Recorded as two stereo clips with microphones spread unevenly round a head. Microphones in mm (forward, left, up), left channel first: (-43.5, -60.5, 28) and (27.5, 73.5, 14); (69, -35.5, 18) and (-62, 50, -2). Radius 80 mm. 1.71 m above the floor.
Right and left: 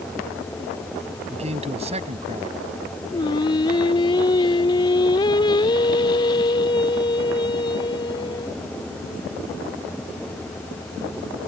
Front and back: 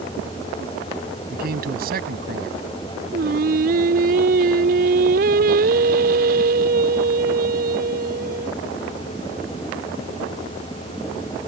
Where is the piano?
I don't hear a piano.